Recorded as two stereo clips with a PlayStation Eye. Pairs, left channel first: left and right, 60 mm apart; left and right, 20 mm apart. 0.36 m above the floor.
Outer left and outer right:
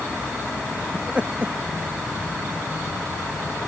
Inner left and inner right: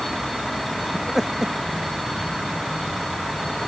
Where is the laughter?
20° right (ahead or behind).